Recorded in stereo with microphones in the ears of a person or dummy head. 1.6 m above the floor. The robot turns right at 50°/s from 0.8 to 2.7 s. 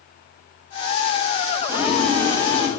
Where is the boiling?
170° right, 7.5 m; by 2.7 s 115° right, 7.5 m.